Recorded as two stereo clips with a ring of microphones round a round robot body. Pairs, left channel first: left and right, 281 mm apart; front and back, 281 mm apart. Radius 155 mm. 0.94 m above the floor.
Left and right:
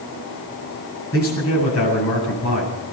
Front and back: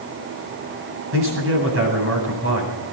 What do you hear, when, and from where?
1.1 s a man speaking: 140° left, 8.5 m